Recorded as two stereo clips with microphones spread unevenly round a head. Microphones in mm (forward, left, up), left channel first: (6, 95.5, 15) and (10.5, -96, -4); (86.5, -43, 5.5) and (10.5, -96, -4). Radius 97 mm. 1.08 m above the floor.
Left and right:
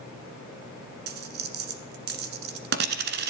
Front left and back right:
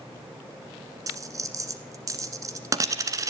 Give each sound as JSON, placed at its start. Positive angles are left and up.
{"t": 1.1, "sound": "a dropped coin", "azimuth_deg": -100, "distance_m": 1.4}